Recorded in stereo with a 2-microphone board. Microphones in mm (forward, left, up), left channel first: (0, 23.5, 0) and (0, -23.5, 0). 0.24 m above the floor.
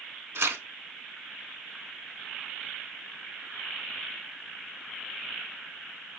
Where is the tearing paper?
75° right (ahead or behind), 0.5 m.